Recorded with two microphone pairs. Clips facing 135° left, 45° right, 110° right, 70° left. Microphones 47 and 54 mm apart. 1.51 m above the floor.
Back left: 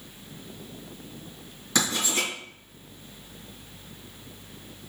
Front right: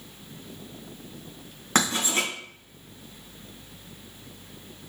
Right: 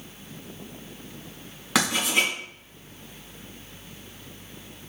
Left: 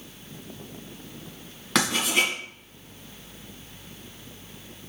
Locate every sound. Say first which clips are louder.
1.8 s writing: front right 2 dB, even; 25° right, 2 m